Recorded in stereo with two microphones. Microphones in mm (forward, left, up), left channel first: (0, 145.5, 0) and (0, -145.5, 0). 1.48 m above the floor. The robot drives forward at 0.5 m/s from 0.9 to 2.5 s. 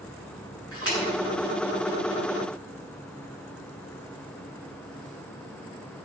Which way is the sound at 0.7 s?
50° right (ahead or behind).